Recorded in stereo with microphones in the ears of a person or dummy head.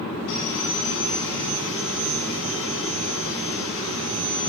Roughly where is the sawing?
Left.